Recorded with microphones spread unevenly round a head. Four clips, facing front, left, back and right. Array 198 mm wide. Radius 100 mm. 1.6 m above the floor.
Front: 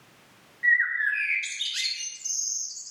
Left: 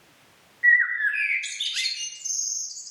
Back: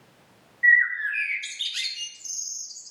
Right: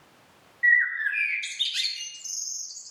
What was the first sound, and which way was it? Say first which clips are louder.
A bird: left 2 dB, back 3 dB; 130° right.